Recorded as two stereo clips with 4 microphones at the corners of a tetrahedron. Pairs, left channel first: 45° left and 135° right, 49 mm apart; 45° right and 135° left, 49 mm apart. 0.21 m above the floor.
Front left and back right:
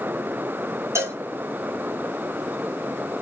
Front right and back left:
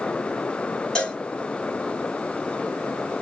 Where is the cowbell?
120° right, 1.0 m.